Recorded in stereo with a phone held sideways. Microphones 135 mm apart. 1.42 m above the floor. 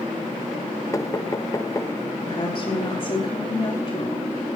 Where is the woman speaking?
30° left (ahead or behind), 4.5 m.